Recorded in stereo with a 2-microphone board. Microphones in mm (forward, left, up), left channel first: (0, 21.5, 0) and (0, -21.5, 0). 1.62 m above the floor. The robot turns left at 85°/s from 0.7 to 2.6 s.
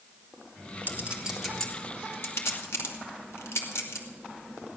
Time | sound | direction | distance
0.9 | a clink | 50° right (ahead or behind) | 2.5 m